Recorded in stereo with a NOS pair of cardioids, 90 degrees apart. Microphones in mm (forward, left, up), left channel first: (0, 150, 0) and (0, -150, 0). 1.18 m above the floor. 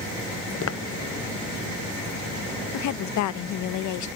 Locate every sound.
0.6 s footsteps: 50° left
2.7 s a woman speaking: 70° left